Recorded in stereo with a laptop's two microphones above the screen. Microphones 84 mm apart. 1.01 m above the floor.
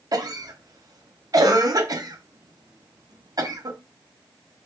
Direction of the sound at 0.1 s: 50° right (ahead or behind).